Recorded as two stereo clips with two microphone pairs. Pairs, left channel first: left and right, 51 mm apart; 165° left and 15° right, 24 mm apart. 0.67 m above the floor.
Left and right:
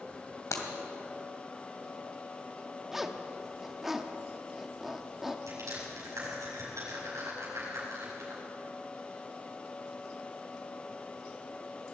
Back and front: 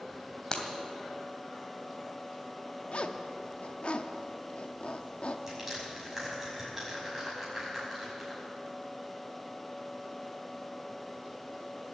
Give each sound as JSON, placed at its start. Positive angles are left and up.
{"t": 0.5, "sound": "breaking glass", "azimuth_deg": 100, "distance_m": 2.0}
{"t": 2.9, "sound": "a zipper", "azimuth_deg": -175, "distance_m": 0.8}
{"t": 5.5, "sound": "crushing", "azimuth_deg": -90, "distance_m": 6.0}